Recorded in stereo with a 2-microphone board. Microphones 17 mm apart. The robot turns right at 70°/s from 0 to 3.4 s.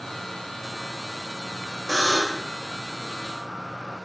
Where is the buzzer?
15° left, 4 m; by 2.5 s 55° left, 4 m.